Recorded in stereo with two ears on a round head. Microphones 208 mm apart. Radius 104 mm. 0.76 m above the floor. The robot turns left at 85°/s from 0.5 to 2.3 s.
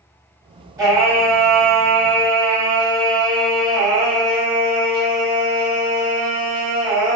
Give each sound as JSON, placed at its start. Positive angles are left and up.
{"t": 0.8, "sound": "singing", "azimuth_deg": -20, "distance_m": 0.8}